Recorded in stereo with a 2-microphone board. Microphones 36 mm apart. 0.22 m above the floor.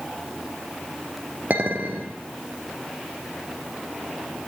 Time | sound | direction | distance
1.5 | a clink | 45° right (ahead or behind) | 3 m